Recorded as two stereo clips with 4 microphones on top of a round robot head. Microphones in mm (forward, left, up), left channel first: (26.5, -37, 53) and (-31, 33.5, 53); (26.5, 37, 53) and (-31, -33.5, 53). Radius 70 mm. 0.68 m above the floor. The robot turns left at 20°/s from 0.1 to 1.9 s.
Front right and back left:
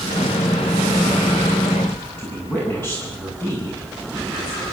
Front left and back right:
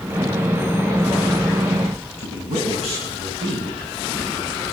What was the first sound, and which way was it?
A woman speaking, 115° right.